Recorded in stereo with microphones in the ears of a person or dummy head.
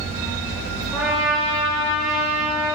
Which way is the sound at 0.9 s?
Centre (ahead or behind).